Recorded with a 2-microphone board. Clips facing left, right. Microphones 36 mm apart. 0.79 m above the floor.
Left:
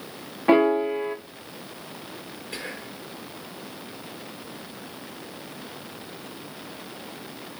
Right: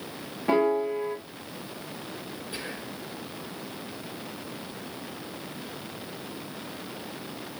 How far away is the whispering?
About 3.5 m.